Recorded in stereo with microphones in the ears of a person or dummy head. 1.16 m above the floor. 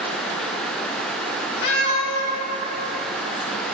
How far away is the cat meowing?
About 1.6 m.